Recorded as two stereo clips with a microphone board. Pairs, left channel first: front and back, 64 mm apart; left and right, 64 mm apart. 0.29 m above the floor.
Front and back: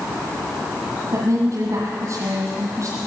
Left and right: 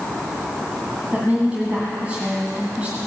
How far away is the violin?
No violin in this recording.